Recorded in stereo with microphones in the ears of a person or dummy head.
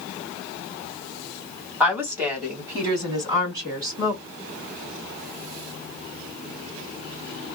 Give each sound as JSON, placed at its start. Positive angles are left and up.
{"t": 1.8, "sound": "a woman speaking", "side_deg": -5, "distance_m": 2.0}